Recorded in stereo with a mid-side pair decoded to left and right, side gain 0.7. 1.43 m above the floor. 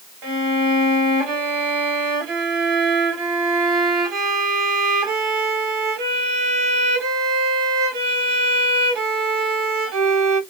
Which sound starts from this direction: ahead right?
A violin, at 0.2 s.